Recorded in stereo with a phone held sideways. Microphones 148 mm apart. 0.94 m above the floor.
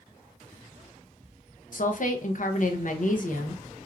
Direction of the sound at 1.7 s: 65° left (ahead or behind).